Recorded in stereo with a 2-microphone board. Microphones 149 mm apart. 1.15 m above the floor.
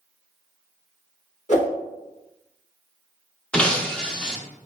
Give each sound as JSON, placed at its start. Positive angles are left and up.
{"t": 1.5, "sound": "a whoosh", "side_deg": 50, "distance_m": 1.9}
{"t": 3.5, "sound": "breaking glass", "side_deg": 5, "distance_m": 0.7}